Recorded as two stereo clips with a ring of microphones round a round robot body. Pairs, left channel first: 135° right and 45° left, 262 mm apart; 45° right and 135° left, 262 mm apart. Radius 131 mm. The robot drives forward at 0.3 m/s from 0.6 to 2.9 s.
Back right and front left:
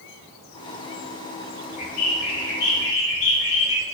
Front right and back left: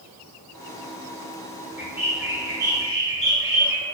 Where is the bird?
145° right, 1.5 m; by 3.8 s 155° right, 1.7 m.